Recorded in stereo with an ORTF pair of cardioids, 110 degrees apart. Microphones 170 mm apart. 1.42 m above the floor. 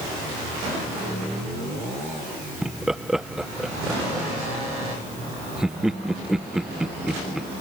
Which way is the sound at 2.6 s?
5° right.